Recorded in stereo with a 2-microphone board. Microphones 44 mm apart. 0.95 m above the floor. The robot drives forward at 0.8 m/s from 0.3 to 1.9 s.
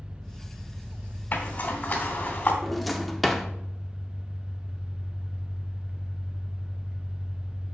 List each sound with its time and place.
0.0 s an engine running: 35° right (ahead or behind), 0.9 m
1.3 s a zipper: 40° left (ahead or behind), 1.6 m; by 2.5 s 30° left (ahead or behind), 1.9 m
2.6 s a drawer: centre (ahead or behind), 0.7 m